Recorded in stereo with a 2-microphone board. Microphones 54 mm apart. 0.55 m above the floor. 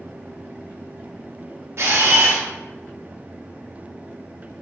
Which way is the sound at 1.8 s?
55° right (ahead or behind).